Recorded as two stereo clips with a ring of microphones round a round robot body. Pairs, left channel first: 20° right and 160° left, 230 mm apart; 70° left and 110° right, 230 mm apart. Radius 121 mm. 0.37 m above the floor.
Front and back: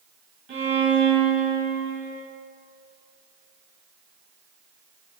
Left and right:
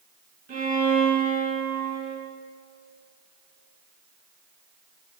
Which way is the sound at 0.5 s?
165° right.